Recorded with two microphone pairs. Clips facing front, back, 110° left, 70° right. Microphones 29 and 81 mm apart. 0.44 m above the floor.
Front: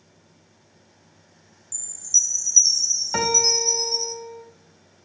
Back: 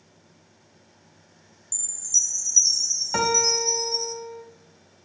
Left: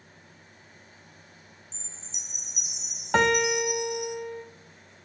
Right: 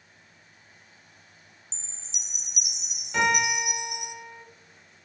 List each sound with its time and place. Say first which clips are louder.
1.7 s a chime: front 3 dB, left 2 dB; 50° right, 0.7 m
3.1 s a piano: front 1 dB, left 2 dB; 95° left, 0.8 m